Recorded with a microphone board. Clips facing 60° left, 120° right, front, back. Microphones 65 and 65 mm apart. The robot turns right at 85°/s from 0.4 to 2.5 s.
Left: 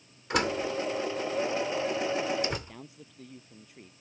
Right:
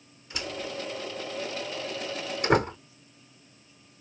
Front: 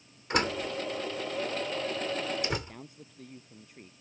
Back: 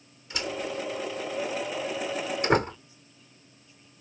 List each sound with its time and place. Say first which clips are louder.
0.3 s a door slam: left 7 dB, front 2 dB; 35° left; by 2.8 s 145° right
2.7 s a man speaking: left 3 dB, front 3 dB; 35° left